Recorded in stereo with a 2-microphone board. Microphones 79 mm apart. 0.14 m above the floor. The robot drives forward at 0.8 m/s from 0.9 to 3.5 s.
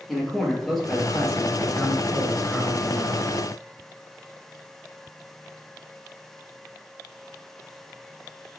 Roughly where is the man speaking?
Centre.